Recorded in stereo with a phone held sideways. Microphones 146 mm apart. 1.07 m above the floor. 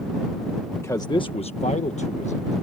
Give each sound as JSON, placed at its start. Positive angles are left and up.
{"t": 0.7, "sound": "a man speaking", "side_deg": 15}